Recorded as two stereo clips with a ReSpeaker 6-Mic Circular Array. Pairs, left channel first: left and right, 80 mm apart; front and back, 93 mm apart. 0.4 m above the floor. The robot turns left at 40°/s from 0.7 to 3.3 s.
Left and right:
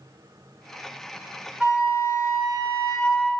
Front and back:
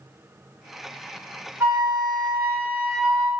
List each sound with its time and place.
1.6 s a flute: 150° right, 1.3 m; by 3.3 s 145° left, 1.3 m